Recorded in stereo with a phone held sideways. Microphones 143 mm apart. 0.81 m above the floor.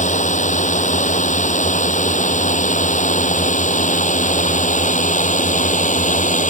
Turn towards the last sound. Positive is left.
turn(degrees=60)  # may be behind; listen again after turning